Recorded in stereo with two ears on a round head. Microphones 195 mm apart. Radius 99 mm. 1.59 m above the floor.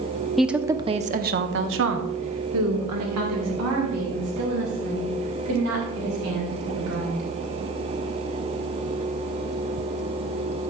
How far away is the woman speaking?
About 0.7 m.